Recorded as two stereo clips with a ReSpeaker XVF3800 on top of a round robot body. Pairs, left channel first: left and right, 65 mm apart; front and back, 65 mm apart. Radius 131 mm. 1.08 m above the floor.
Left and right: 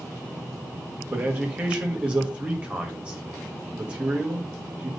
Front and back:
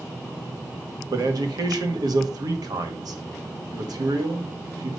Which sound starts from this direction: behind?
A man speaking, at 1.1 s.